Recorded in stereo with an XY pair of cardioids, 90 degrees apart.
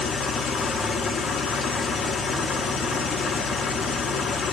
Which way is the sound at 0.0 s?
65° left.